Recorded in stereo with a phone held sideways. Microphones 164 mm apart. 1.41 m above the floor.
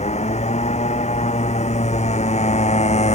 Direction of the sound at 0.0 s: 40° left (ahead or behind).